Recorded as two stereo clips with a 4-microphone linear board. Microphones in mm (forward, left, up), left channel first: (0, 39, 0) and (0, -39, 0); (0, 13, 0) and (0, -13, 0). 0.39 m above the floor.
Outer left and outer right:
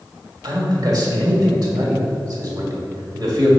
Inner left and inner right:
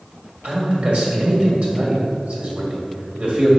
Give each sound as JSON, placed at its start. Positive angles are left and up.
{"t": 0.4, "sound": "a man speaking", "side_deg": -55, "distance_m": 2.0}